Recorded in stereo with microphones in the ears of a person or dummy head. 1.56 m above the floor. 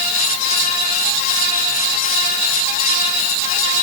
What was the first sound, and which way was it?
Only background noise.